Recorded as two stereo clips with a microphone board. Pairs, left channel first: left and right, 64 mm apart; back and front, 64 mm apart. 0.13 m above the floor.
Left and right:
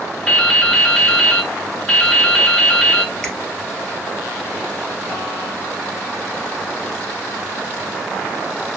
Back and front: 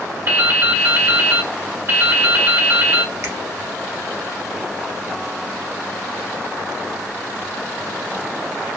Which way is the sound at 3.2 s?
10° left.